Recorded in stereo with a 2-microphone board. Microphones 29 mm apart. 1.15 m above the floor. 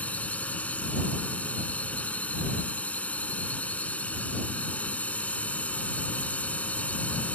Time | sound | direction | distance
0.0 | a drone | 50° left (ahead or behind) | ?